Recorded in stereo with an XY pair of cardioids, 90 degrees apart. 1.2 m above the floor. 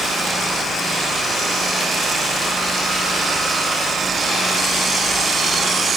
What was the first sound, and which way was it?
Only background noise.